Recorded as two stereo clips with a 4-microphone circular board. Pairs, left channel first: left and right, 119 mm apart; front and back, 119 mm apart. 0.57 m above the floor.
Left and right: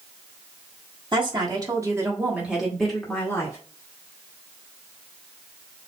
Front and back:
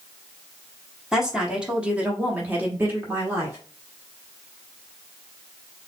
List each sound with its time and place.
1.1 s a woman speaking: 95° right, 1.5 m; by 3.6 s 130° left, 1.3 m